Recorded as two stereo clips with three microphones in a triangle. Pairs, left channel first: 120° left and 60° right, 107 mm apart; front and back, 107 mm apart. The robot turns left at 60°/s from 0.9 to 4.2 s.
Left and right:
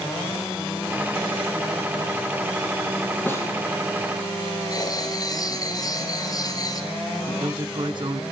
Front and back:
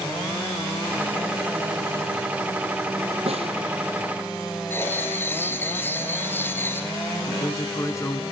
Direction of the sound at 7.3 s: 50° right.